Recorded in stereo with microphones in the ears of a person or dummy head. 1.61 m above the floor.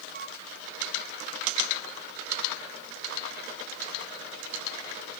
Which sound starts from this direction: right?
A flute, at 0.1 s.